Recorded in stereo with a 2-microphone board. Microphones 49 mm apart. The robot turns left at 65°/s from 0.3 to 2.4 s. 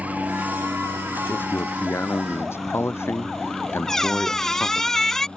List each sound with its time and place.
0.0 s a helicopter: 35° right (ahead or behind); by 5.4 s 20° left (ahead or behind)
1.3 s a man speaking: 140° left; by 4.9 s 65° left
3.9 s a squeak: 10° left (ahead or behind)